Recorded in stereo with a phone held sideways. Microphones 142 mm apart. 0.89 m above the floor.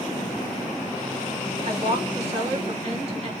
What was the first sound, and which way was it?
A woman speaking, 45° right (ahead or behind).